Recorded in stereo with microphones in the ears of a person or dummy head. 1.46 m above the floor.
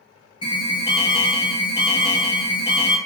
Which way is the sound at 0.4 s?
20° left (ahead or behind).